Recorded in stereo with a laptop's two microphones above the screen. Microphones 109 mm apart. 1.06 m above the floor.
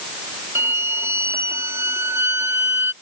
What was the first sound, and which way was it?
A violin, 25° right (ahead or behind).